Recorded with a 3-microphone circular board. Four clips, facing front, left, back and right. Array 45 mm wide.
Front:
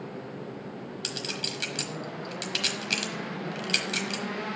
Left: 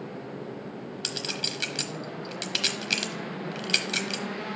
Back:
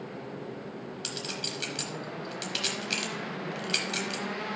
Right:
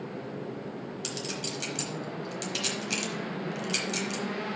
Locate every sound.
1.0 s a clink: 75° left, 1.1 m